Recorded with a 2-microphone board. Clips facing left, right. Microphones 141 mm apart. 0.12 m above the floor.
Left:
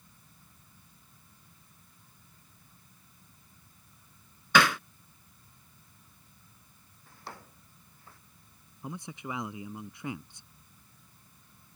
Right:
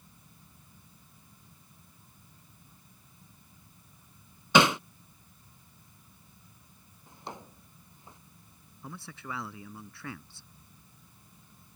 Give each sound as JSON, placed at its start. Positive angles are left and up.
{"t": 4.5, "sound": "hammering", "side_deg": -25}
{"t": 7.1, "sound": "a drawer", "side_deg": -20}
{"t": 8.8, "sound": "a man speaking", "side_deg": 20}